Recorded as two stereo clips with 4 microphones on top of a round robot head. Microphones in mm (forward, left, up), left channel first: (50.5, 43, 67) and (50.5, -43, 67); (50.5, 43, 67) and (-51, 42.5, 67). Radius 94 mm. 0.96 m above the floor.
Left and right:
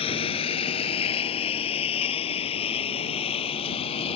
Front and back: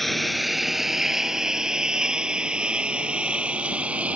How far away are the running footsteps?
I don't hear running footsteps.